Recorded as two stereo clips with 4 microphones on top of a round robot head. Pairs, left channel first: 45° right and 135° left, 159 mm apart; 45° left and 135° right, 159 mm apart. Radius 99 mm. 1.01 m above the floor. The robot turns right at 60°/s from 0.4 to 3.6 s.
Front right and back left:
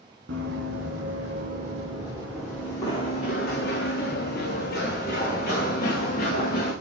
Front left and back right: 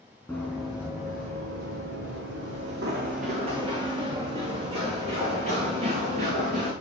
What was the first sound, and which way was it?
Running footsteps, 125° left.